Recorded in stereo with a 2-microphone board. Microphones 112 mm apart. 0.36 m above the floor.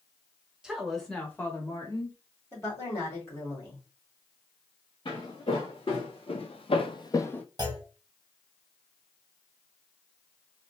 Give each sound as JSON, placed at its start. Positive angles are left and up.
{"t": 0.6, "sound": "a woman speaking", "side_deg": -5, "distance_m": 1.0}
{"t": 2.5, "sound": "a woman speaking", "side_deg": 25, "distance_m": 2.0}
{"t": 5.0, "sound": "footsteps", "side_deg": 45, "distance_m": 1.6}
{"t": 7.6, "sound": "a clunk", "side_deg": -35, "distance_m": 0.7}